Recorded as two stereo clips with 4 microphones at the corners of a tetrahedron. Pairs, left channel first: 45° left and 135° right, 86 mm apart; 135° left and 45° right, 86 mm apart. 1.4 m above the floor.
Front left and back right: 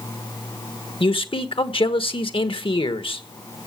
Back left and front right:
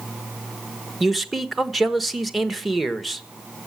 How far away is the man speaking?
About 1.3 m.